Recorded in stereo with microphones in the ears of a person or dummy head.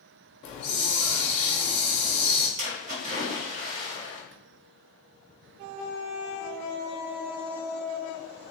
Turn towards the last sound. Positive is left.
turn(degrees=-55)  # may be behind; listen again after turning